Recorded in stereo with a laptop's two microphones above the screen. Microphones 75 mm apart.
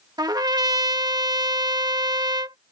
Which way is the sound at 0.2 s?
65° right (ahead or behind).